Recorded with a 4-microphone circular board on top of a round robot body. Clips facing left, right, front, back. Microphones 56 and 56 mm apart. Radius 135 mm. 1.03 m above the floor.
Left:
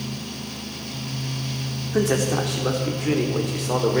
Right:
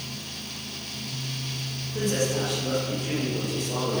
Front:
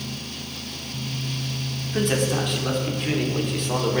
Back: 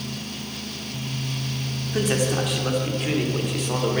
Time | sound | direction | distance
1.9 | a man speaking | 90° left | 3.5 m